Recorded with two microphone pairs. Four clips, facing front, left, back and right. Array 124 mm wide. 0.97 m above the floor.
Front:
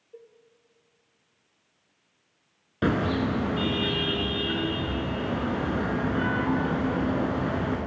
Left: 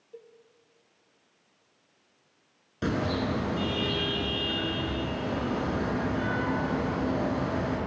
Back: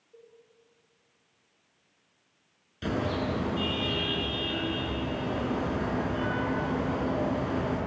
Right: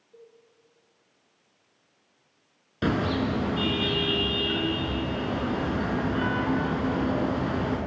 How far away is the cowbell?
About 4 m.